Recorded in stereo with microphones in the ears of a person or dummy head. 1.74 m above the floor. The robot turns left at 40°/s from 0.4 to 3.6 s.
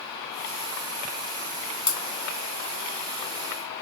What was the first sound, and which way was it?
Breaking glass, 35° left (ahead or behind).